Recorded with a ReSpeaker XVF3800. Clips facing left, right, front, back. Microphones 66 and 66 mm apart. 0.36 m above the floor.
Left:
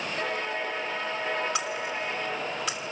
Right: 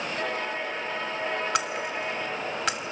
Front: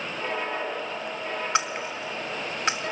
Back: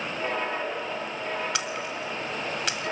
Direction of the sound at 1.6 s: 60° right.